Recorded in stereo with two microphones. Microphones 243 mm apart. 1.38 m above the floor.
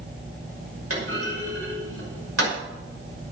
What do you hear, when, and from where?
0.9 s a clunk: 70° right (ahead or behind), 5.5 m